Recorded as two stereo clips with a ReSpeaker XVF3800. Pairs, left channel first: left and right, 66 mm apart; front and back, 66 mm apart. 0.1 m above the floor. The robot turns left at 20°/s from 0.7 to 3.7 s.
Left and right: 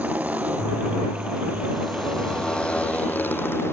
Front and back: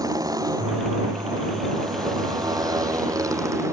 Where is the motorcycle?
160° right; by 3.7 s 140° left.